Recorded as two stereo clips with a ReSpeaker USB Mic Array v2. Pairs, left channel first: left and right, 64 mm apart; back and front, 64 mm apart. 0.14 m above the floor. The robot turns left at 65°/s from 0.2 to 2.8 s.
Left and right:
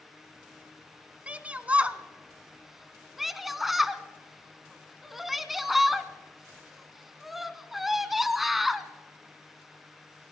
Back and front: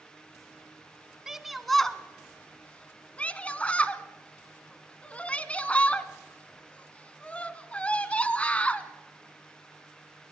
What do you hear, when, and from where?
1.3 s a shout: 70° right, 1.3 m; by 8.9 s 170° right, 1.3 m